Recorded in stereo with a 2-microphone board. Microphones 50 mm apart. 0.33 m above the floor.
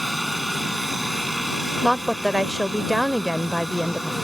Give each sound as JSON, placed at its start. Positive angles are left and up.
{"t": 0.0, "sound": "a helicopter", "side_deg": 0}
{"t": 1.8, "sound": "a woman speaking", "side_deg": 0}